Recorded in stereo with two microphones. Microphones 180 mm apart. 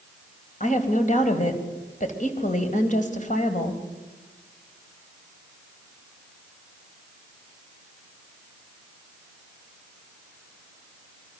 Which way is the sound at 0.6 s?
45° left (ahead or behind).